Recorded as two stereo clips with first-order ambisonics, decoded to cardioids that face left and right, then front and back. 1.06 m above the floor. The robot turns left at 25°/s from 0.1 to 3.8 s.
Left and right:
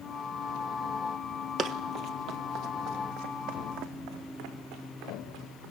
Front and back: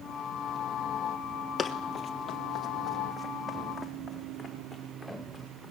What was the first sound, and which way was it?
Running footsteps, 60° right.